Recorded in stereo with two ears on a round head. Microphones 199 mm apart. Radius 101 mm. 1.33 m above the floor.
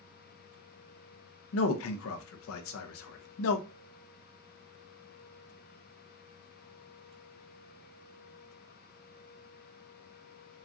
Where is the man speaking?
70° left (ahead or behind), 0.6 m.